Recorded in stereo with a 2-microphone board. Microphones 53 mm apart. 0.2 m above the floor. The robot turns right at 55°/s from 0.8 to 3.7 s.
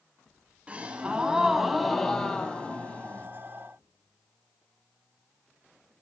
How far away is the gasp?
About 0.6 m.